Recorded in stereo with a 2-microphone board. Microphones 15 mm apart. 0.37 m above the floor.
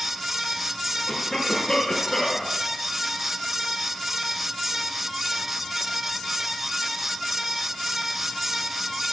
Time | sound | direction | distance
1.1 | a cough | 45° left (ahead or behind) | 4.5 m